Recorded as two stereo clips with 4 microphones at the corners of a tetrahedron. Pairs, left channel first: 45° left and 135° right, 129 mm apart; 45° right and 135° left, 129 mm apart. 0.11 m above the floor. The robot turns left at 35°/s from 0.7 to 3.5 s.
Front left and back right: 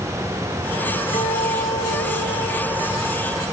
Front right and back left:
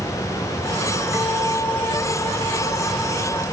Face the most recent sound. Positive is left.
turn(degrees=-25)